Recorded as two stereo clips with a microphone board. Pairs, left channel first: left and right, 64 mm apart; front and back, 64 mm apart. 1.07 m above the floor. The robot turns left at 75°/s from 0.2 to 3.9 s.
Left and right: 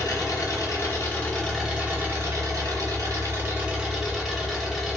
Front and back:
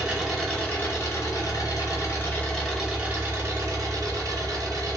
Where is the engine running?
100° left, 1.0 m; by 5.0 s 175° right, 1.0 m.